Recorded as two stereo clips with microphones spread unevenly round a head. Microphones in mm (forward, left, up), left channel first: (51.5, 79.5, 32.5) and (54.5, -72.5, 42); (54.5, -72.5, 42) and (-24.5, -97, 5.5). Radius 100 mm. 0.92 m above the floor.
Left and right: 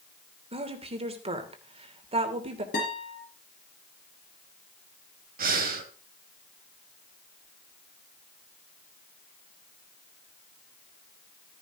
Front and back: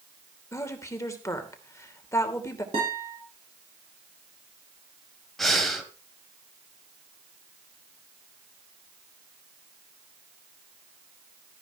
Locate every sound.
0.5 s a woman speaking: 40° right, 3 m
2.7 s a guitar: 140° left, 4.5 m
5.4 s breathing: 65° right, 2 m